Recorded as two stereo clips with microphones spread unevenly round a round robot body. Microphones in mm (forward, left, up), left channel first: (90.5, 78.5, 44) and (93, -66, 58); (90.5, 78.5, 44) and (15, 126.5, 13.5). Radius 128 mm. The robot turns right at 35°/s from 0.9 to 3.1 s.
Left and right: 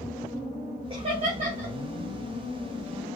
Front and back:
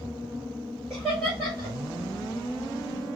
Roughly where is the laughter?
Behind right.